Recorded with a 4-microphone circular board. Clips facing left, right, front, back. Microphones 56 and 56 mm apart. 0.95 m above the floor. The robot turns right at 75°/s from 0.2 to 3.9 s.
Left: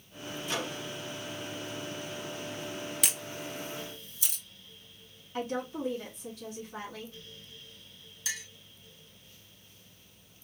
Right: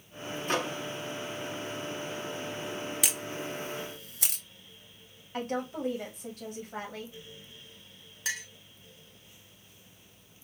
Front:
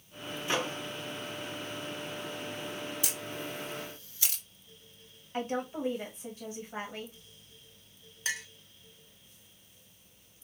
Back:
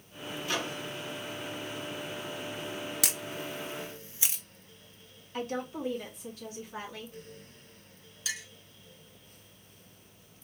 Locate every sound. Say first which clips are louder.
0.5 s a microwave: right 5 dB, front 2 dB; 65° right, 0.6 m; by 0.8 s 40° right, 0.6 m
3.0 s a camera shutter: right 2 dB, back 1 dB; straight behind, 0.6 m; by 4.4 s 115° right, 0.6 m
5.3 s a woman speaking: right 1 dB, front 1 dB; 65° right, 1.3 m
8.2 s a clink: right 4 dB, front 3 dB; 55° right, 0.8 m